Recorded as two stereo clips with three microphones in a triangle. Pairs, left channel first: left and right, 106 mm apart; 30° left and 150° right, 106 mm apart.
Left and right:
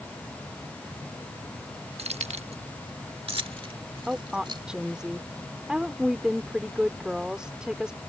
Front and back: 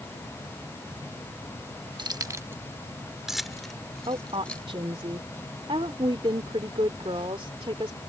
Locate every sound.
2.0 s keys jangling: 105° right; by 4.7 s 50° right
4.1 s a woman speaking: 170° right